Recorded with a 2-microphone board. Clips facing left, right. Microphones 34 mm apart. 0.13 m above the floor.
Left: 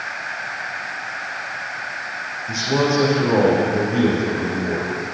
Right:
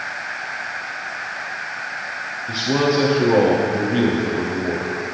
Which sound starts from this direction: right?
A man speaking, at 2.5 s.